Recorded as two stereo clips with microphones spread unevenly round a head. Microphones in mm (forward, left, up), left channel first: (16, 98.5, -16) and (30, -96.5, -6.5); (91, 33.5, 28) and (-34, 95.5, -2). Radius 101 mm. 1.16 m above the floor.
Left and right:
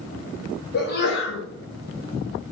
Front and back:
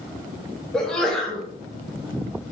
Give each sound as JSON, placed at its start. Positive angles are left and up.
{"t": 0.7, "sound": "a sneeze", "azimuth_deg": 65, "distance_m": 1.0}